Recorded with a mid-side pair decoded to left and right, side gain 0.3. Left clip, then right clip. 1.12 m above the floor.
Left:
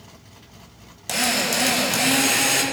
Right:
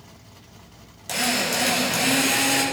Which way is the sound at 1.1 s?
45° left.